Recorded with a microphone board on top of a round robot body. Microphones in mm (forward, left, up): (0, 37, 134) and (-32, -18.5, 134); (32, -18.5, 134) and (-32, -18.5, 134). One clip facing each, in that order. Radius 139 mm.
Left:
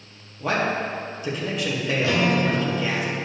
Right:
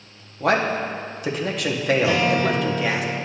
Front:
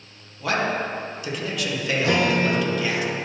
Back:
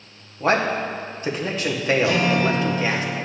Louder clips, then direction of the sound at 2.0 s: Right 2 dB, front 3 dB; 45° right.